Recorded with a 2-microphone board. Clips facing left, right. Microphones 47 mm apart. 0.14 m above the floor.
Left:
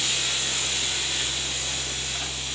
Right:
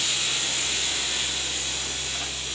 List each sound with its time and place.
Only background noise.